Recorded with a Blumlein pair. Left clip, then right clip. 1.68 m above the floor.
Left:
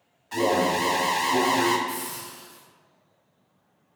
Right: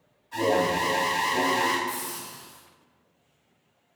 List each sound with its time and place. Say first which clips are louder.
0.3 s an alarm: left 1 dB; 40° left, 0.6 m
1.9 s a hiss: even; 30° right, 1.0 m